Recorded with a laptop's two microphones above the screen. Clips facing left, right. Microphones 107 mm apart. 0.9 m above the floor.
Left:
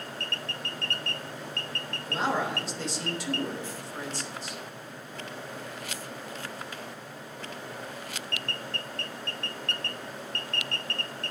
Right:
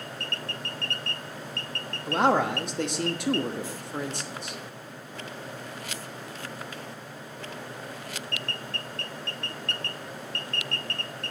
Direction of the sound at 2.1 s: 60° right (ahead or behind).